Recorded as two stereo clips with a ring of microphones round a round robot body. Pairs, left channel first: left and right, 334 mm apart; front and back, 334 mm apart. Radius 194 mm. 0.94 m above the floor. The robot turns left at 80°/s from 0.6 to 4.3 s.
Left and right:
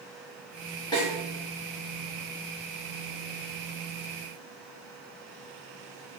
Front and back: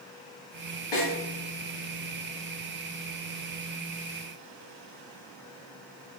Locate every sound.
0.9 s a snare drum: 15° left, 1.8 m; by 1.1 s straight ahead, 1.8 m